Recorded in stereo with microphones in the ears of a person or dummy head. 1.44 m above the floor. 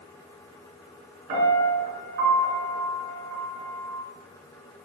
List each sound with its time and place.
1.3 s a piano: 55° right (ahead or behind), 6 m